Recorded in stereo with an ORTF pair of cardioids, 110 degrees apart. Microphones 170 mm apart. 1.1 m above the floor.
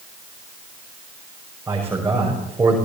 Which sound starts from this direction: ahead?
A man speaking, at 1.7 s.